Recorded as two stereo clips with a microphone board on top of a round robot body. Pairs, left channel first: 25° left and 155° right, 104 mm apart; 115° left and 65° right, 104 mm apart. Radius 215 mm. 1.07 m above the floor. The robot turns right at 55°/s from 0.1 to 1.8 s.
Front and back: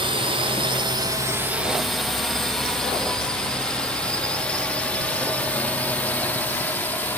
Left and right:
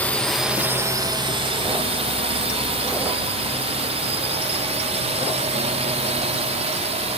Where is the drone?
175° right; by 7.2 s 50° right.